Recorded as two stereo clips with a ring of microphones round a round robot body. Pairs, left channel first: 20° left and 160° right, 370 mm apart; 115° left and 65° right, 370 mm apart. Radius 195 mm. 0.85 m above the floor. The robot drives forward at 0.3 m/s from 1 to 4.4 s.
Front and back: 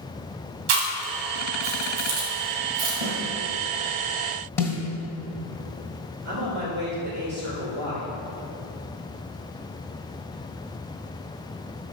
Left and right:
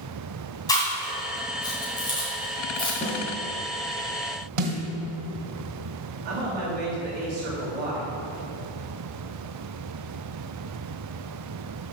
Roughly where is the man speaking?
Behind right.